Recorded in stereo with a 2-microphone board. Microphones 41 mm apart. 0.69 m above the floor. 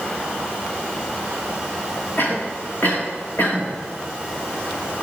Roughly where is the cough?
Left.